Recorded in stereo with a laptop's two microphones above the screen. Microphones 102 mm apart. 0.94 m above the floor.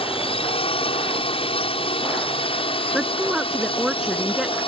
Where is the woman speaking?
5° right (ahead or behind).